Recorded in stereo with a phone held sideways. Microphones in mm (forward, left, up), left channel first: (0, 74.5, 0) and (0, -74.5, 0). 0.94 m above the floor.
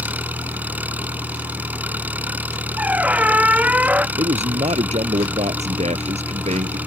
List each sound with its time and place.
0.0 s an engine running: 10° right (ahead or behind)
2.8 s a squeak: 10° right (ahead or behind)
4.2 s a man speaking: 45° right (ahead or behind)